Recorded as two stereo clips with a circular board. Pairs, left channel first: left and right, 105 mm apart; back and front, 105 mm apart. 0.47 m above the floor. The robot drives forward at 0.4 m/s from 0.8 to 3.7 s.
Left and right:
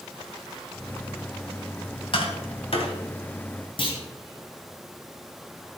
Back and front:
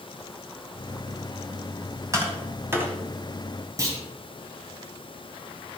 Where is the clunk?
55° left, 2.5 m.